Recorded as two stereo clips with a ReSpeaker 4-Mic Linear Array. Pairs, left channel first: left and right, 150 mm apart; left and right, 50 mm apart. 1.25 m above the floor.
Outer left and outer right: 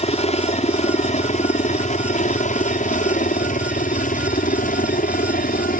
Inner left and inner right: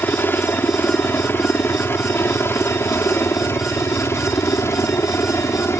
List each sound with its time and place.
0.0 s a helicopter: 45° left (ahead or behind); by 5.8 s 65° left (ahead or behind)